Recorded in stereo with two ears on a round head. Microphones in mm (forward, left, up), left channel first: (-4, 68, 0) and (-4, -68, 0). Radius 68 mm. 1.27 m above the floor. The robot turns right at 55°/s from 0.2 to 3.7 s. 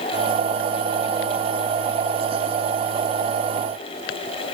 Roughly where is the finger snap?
No finger snap in this recording.